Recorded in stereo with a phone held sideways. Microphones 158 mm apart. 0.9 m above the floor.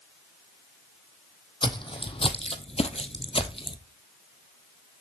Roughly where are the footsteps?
Left.